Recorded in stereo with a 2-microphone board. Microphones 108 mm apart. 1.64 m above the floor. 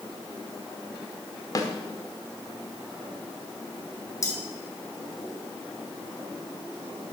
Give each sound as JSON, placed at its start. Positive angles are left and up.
{"t": 1.6, "sound": "a snare drum", "side_deg": 35, "distance_m": 1.5}
{"t": 4.2, "sound": "cutlery clinking", "side_deg": 30, "distance_m": 2.5}